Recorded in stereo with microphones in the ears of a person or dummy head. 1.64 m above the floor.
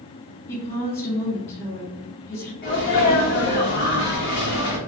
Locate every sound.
0.5 s a woman speaking: 30° left (ahead or behind), 1.5 m
2.6 s a sneeze: 50° left (ahead or behind), 0.9 m